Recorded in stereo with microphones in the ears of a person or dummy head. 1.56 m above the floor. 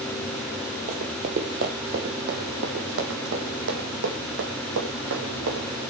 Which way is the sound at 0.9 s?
30° right (ahead or behind).